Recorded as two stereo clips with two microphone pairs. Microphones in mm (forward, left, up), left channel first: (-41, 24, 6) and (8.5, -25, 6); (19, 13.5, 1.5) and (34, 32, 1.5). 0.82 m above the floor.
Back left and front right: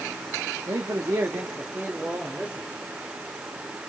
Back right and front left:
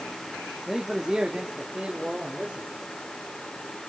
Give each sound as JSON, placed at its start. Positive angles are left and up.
{"t": 0.7, "sound": "a man speaking", "azimuth_deg": -15, "distance_m": 1.6}